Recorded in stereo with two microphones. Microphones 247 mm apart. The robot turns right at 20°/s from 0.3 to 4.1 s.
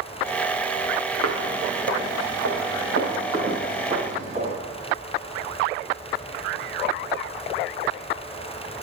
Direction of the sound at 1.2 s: 85° right.